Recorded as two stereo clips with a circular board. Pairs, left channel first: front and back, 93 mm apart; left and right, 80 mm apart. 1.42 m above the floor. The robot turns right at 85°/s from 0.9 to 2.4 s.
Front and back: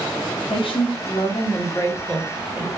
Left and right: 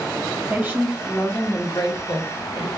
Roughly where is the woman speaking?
Ahead.